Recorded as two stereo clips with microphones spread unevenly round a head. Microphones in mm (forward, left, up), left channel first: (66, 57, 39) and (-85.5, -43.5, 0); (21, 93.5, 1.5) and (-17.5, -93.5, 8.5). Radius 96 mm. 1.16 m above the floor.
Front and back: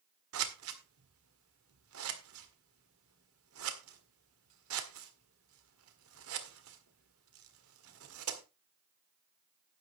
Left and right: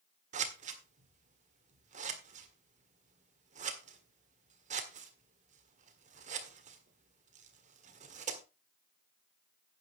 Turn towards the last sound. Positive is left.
turn(degrees=-155)